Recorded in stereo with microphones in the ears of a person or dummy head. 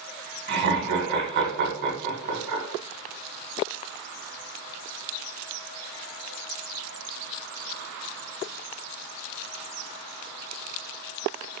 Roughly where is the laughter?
Right.